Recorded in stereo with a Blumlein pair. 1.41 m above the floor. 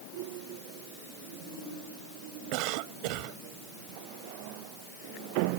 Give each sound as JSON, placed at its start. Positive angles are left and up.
{"t": 2.5, "sound": "a cough", "azimuth_deg": -45}